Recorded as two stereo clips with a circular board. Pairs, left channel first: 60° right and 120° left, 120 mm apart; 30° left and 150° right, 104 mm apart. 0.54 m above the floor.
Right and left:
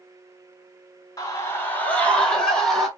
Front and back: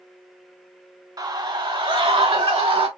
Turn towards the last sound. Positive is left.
turn(degrees=-150)